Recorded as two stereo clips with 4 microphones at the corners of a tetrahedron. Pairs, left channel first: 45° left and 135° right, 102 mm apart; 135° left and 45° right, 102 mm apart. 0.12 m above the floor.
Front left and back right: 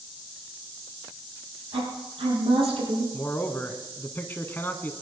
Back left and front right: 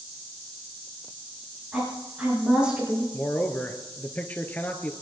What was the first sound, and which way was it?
A woman speaking, 125° right.